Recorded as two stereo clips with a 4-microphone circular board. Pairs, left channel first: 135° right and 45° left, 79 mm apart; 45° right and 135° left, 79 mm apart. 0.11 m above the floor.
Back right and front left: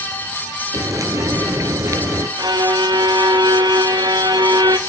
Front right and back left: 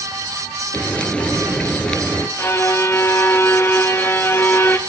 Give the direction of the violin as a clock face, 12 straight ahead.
12 o'clock.